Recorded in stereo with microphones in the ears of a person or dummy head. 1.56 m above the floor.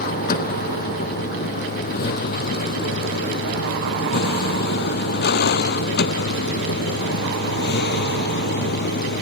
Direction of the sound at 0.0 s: 45° left (ahead or behind).